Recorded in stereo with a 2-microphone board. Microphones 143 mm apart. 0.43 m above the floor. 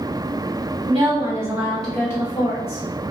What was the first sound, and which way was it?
A woman speaking, 40° right (ahead or behind).